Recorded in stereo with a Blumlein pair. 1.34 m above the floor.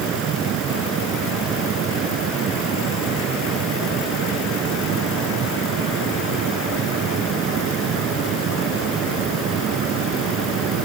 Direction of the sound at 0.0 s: 30° right.